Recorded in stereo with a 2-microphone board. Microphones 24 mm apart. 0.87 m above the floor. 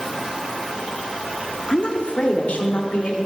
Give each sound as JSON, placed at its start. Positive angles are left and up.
{"t": 1.7, "sound": "a woman speaking", "side_deg": 40, "distance_m": 1.4}